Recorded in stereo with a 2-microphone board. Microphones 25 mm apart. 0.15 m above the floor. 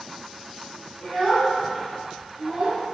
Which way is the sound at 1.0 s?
30° left (ahead or behind).